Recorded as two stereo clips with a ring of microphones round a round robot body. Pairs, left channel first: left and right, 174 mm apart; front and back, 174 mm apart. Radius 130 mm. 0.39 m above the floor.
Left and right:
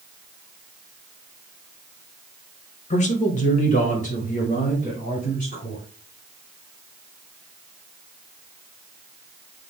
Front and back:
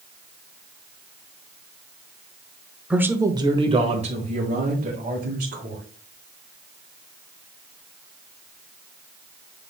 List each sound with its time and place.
2.9 s a man speaking: 100° left, 1.0 m; by 5.8 s 145° left, 3 m